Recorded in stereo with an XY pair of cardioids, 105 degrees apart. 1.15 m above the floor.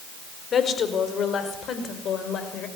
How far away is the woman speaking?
About 4.5 m.